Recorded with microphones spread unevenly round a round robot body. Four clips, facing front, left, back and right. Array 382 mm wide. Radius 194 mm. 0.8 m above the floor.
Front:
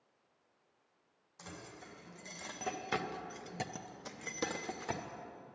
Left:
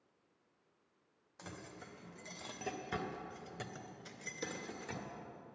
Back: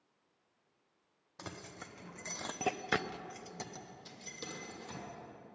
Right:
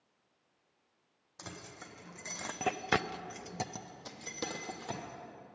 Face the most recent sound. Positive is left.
turn(degrees=-30)